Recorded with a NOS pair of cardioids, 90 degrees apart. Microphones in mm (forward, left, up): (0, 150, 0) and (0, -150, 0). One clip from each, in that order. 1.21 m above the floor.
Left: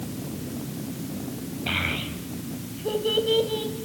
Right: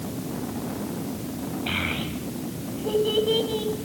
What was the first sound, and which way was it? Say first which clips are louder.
A child speaking: left 1 dB; 10° left.